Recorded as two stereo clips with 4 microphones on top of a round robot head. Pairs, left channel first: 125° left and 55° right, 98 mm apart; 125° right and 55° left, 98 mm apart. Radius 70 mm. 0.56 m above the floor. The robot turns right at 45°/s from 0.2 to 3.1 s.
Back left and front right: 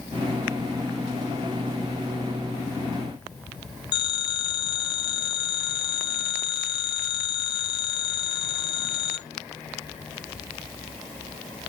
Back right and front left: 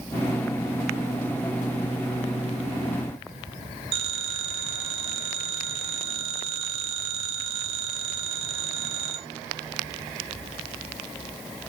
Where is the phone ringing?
80° left, 1.3 m.